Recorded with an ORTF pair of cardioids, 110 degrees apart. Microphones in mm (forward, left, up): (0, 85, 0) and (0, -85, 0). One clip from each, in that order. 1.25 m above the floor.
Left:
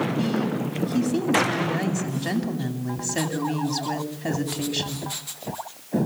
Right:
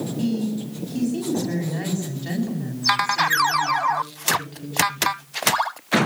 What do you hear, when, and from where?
0.2 s a woman speaking: 55° left, 8.5 m